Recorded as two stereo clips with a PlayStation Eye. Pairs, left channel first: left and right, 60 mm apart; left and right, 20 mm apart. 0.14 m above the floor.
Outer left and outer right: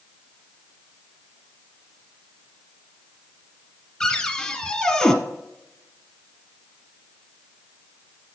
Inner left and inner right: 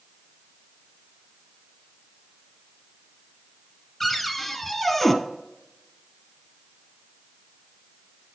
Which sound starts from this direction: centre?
A cupboard door, at 4.0 s.